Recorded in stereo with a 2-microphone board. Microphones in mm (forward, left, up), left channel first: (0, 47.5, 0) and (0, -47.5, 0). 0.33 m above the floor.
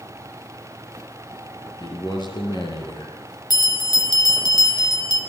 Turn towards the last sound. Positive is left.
turn(degrees=45)  # may be behind; listen again after turning